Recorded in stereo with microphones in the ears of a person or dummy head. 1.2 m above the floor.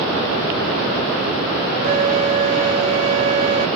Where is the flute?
35° right (ahead or behind).